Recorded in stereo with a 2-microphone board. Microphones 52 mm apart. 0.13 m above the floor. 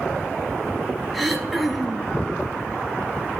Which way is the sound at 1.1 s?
Centre (ahead or behind).